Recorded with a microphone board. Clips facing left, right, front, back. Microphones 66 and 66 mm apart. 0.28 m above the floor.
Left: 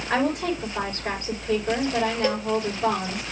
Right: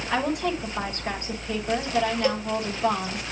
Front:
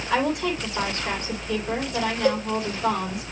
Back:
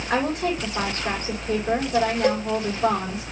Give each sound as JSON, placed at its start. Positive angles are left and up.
{"t": 0.1, "sound": "a woman speaking", "azimuth_deg": 135, "distance_m": 9.0}
{"t": 2.2, "sound": "a cowbell", "azimuth_deg": 155, "distance_m": 6.5}